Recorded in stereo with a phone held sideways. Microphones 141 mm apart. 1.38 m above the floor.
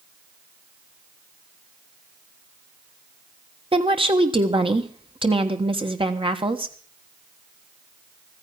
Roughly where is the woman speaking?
Right.